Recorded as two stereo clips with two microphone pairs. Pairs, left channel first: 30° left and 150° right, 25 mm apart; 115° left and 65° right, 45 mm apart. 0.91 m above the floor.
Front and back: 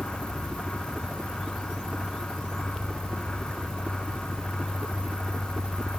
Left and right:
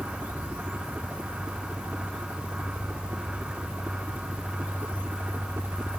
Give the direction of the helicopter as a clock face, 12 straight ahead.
3 o'clock.